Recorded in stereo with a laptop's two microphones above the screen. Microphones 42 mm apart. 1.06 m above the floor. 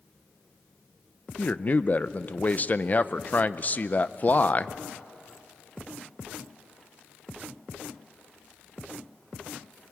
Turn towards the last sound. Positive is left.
turn(degrees=35)  # may be behind; listen again after turning